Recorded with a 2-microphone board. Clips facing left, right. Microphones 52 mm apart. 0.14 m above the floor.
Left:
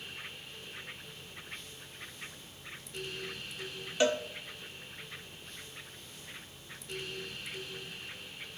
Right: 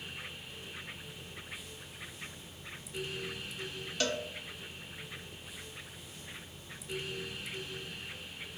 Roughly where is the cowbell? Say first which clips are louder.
Left 6 dB; centre.